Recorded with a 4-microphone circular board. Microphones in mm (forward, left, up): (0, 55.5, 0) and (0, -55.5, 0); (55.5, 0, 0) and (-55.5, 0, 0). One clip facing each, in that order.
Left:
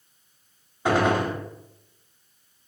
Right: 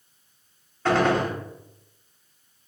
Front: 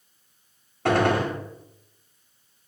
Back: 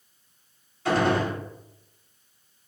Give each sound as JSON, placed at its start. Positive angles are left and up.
{"t": 0.8, "sound": "a gunshot", "azimuth_deg": 15, "distance_m": 0.8}